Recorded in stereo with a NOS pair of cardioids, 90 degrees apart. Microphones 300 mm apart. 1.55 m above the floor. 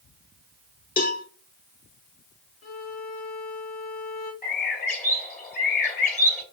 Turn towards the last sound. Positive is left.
turn(degrees=30)